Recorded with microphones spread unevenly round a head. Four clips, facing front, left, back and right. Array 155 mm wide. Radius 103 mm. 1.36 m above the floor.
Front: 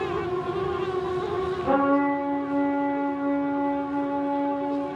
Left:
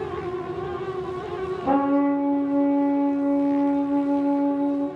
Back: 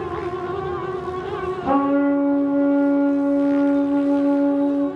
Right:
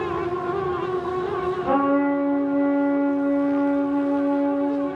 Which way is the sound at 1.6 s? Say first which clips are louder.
Left 1 dB, back 4 dB; 135° left.